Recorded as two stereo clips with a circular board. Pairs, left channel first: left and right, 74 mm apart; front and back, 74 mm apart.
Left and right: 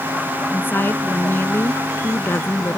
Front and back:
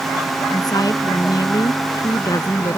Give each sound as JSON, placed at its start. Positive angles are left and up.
{"t": 0.5, "sound": "a woman speaking", "azimuth_deg": 30}